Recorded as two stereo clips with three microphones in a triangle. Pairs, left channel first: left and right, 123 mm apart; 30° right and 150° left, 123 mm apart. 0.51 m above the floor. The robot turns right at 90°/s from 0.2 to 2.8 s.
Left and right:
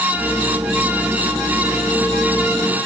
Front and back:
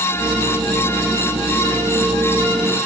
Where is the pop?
I don't hear a pop.